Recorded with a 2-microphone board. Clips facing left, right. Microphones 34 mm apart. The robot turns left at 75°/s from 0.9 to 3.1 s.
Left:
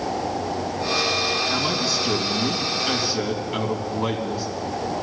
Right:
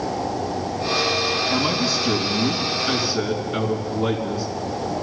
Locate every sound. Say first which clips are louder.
1.5 s a man speaking: right 2 dB; 125° right, 2.5 m; by 4.5 s 115° left, 2.5 m